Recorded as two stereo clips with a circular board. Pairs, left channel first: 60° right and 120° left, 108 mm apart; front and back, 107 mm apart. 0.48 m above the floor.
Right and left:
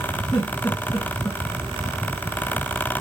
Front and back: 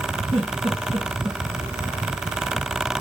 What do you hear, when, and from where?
0.3 s a giggle: 140° right, 3.5 m